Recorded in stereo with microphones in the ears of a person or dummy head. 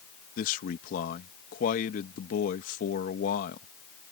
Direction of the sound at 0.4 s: 50° left (ahead or behind).